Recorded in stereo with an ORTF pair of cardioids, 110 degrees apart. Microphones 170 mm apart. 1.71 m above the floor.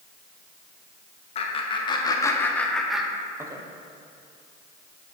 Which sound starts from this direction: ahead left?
Laughter, at 1.4 s.